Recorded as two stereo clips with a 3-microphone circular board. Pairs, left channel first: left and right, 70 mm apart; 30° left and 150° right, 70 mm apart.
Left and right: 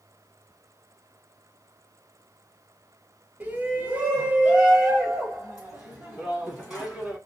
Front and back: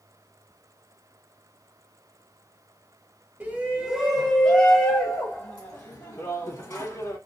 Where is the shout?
120° right, 1.3 m; by 7.2 s 10° right, 3 m.